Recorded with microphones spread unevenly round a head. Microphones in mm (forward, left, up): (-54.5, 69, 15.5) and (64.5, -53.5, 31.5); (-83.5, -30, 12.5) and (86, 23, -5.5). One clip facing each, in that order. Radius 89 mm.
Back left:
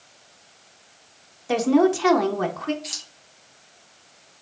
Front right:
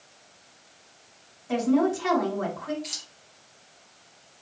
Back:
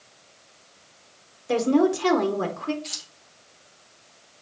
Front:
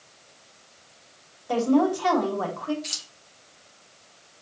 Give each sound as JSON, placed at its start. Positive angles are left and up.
{"t": 1.5, "sound": "a woman speaking", "azimuth_deg": 135, "distance_m": 1.0}
{"t": 2.8, "sound": "keys jangling", "azimuth_deg": 50, "distance_m": 2.0}